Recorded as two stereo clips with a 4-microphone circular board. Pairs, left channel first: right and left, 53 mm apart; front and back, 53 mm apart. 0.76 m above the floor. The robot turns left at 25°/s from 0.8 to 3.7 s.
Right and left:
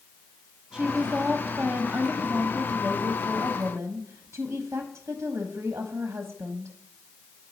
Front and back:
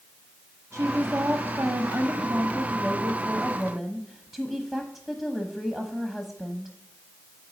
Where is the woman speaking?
175° left, 1.1 m; by 6.7 s 100° left, 1.1 m.